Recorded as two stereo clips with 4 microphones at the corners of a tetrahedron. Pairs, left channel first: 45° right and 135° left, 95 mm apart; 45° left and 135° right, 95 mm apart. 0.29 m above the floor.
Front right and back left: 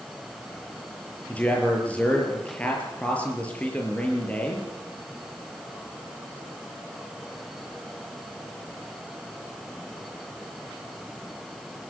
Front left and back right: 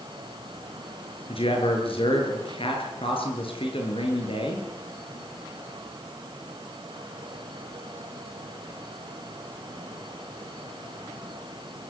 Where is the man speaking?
30° left, 6.5 m.